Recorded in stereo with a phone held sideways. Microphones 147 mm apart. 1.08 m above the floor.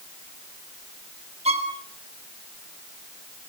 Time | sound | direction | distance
1.4 | a violin | 50° right (ahead or behind) | 3.5 m